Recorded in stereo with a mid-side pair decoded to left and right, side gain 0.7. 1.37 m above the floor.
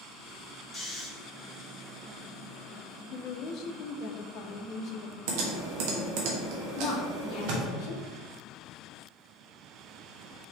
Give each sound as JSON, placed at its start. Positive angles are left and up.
{"t": 0.7, "sound": "snoring", "azimuth_deg": 25, "distance_m": 1.3}
{"t": 3.1, "sound": "a woman speaking", "azimuth_deg": 55, "distance_m": 0.6}
{"t": 5.3, "sound": "typing on a keyboard", "azimuth_deg": -65, "distance_m": 1.0}
{"t": 6.8, "sound": "a woman speaking", "azimuth_deg": 60, "distance_m": 0.8}